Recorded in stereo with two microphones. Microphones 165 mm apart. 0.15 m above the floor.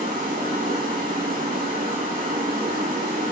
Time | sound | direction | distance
0.0 | running water | 55° right (ahead or behind) | 2 m